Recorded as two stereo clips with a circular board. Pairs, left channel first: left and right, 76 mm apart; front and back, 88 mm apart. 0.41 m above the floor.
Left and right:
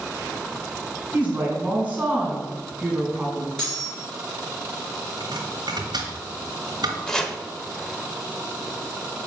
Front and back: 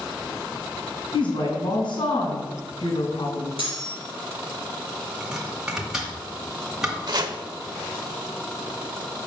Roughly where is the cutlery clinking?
Ahead.